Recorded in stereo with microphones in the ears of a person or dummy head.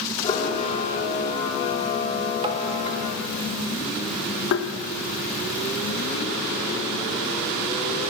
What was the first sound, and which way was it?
A camera shutter, 35° left (ahead or behind).